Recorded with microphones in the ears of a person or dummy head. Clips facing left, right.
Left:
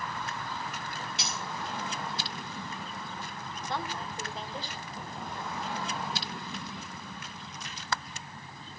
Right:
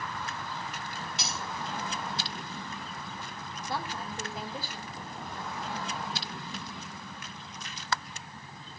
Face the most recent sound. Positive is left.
turn(degrees=-5)  # may be behind; listen again after turning